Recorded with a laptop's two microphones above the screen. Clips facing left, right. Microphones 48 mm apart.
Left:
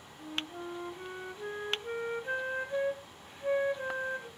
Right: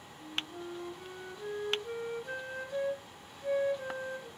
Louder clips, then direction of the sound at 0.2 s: Left 1 dB; 30° left (ahead or behind).